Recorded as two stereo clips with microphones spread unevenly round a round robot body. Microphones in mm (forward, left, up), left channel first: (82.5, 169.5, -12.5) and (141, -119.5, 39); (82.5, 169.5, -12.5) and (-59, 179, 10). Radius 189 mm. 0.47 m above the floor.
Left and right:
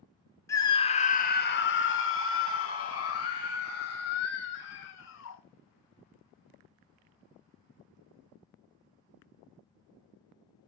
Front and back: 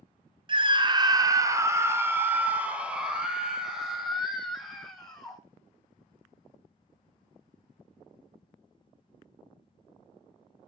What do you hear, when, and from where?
0.5 s a scream: 150° left, 1.2 m; by 5.4 s 80° left, 3.5 m